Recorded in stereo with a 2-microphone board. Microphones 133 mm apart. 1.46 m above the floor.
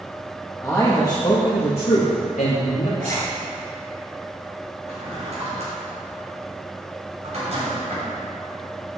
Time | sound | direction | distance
0.6 | a man speaking | 10° left (ahead or behind) | 2.0 m
3.0 | a zipper | 80° right | 3.5 m
4.9 | a drawer | 55° right (ahead or behind) | 4 m